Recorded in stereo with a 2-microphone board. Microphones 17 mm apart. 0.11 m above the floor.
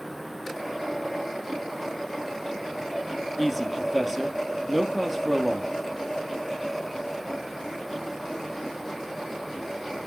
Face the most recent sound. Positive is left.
turn(degrees=-10)  # may be behind; listen again after turning